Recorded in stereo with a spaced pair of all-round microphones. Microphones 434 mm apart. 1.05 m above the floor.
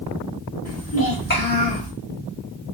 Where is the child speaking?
40° left (ahead or behind), 1.7 m; by 1.9 s 15° left (ahead or behind), 1.4 m.